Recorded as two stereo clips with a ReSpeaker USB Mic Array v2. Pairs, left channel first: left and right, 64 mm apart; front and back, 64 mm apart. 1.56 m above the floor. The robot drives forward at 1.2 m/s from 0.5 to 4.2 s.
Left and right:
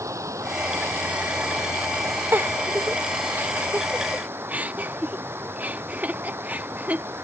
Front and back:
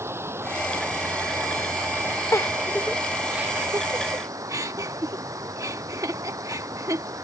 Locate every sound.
0.0 s running water: 130° right; by 7.2 s 145° right
2.3 s a giggle: 40° right; by 7.0 s 155° right